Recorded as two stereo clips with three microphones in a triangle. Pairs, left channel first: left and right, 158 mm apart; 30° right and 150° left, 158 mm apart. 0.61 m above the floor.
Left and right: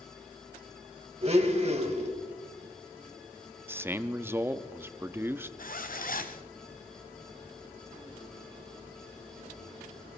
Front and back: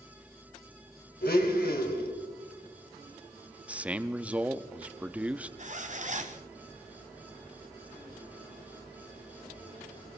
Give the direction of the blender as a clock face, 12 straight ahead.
1 o'clock.